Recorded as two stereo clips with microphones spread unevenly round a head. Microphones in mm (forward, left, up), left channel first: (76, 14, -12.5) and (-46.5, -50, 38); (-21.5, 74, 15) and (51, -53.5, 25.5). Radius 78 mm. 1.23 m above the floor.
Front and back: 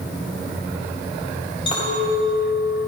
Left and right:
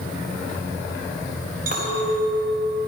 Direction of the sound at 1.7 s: 30° right.